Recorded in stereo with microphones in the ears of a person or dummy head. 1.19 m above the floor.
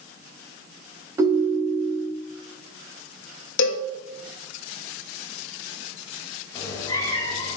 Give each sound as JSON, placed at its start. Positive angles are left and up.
{"t": 1.2, "sound": "a ringtone", "side_deg": -15, "distance_m": 1.5}
{"t": 3.6, "sound": "a cowbell", "side_deg": 75, "distance_m": 1.3}
{"t": 6.5, "sound": "a cat meowing", "side_deg": 20, "distance_m": 2.0}